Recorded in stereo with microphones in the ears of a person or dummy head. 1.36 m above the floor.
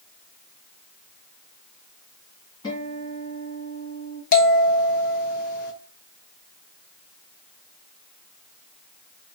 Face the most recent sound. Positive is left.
turn(degrees=55)  # may be behind; listen again after turning